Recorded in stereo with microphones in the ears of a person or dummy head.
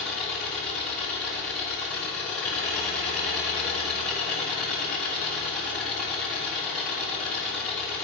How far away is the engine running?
About 1.2 m.